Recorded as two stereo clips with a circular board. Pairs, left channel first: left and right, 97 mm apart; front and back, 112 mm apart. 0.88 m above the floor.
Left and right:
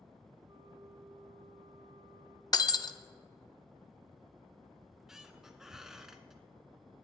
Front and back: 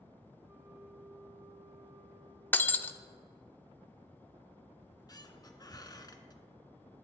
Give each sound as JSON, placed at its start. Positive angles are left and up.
{"t": 0.5, "sound": "a flute", "azimuth_deg": -115, "distance_m": 1.5}
{"t": 2.5, "sound": "breaking glass", "azimuth_deg": 65, "distance_m": 0.5}
{"t": 4.8, "sound": "a squeak", "azimuth_deg": -10, "distance_m": 0.9}